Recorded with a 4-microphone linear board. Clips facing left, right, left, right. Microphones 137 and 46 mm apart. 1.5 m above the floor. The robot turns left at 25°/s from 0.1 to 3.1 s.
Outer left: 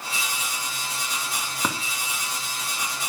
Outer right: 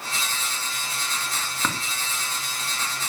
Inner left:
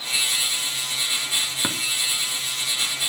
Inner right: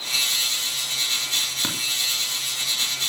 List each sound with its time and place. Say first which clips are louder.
1.6 s tapping: outer left 1 dB, inner left 2 dB; 15° left (ahead or behind), 2.5 m; by 1.8 s 20° left (ahead or behind), 2.5 m